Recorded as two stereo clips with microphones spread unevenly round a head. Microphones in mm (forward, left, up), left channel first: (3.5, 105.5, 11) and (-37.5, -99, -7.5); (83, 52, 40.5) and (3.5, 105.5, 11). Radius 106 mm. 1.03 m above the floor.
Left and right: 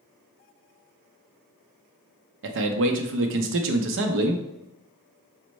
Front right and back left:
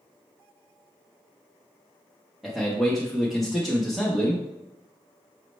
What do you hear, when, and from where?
2.4 s a man speaking: 130° right, 0.6 m